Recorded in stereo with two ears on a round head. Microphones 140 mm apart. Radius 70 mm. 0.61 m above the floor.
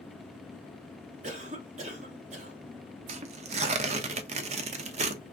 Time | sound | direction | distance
1.2 | a cough | 45° right (ahead or behind) | 1.2 m
3.1 | tearing paper | 45° right (ahead or behind) | 0.5 m